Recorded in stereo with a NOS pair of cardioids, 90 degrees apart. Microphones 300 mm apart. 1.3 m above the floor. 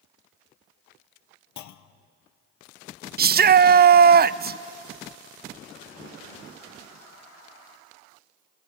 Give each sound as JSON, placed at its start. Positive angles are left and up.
{"t": 1.6, "sound": "a clunk", "azimuth_deg": 70, "distance_m": 0.8}
{"t": 3.2, "sound": "a shout", "azimuth_deg": -30, "distance_m": 0.6}